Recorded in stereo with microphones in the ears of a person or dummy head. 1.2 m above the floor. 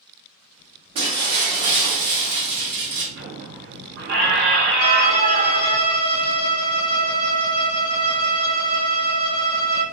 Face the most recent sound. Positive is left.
turn(degrees=20)  # may be behind; listen again after turning